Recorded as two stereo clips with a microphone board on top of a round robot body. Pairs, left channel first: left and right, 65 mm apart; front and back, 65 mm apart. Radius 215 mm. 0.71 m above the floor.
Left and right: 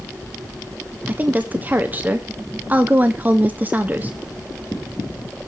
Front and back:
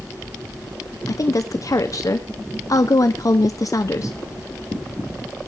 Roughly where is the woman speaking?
Ahead right.